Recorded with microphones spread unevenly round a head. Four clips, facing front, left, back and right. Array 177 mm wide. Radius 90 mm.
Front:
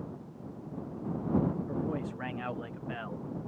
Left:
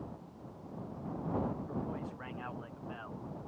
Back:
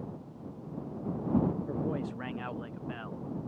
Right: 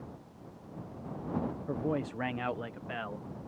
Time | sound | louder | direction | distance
1.7 | a man speaking | right 6 dB, even | 125° right | ?